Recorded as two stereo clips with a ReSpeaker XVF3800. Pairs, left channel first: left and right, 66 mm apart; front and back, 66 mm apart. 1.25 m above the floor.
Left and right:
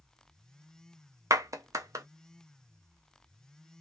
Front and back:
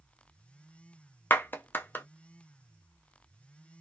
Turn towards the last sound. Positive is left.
turn(degrees=-60)